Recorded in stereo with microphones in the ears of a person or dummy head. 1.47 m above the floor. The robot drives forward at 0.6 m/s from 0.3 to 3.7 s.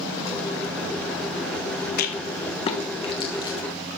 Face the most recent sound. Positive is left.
turn(degrees=20)  # may be behind; listen again after turning